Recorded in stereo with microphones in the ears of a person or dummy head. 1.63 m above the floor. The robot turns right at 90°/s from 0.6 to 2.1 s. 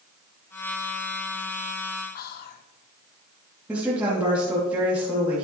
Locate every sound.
2.1 s whispering: 55° left (ahead or behind), 1.1 m
3.7 s a woman speaking: 5° right (ahead or behind), 2.5 m